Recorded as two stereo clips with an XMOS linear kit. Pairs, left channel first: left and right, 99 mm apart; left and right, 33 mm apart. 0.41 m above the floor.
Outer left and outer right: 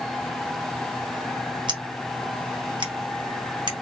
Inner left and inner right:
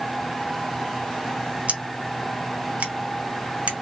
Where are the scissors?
50° right (ahead or behind), 1.3 m.